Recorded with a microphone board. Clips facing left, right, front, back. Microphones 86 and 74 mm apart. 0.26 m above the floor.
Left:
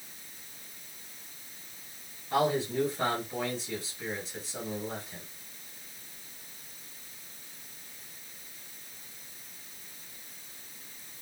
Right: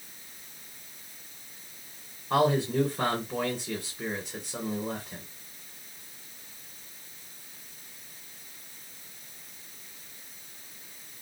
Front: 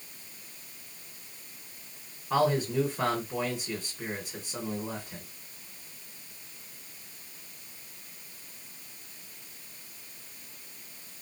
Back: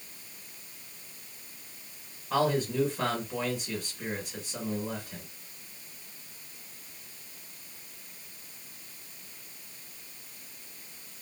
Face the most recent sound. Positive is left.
turn(degrees=-65)